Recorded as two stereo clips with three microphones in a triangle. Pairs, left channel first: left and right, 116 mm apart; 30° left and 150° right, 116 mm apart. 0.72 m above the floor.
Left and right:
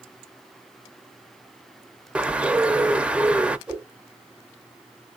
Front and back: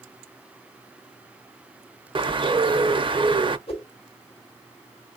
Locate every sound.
2.1 s a bird: 165° right, 0.5 m
3.7 s a whoosh: 10° right, 1.8 m